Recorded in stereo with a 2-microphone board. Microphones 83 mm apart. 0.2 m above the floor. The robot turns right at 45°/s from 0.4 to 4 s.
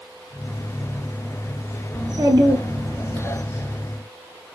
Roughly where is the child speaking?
Right.